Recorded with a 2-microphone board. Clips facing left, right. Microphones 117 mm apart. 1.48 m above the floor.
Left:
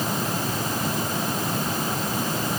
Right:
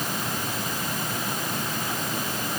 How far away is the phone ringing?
No phone ringing in this recording.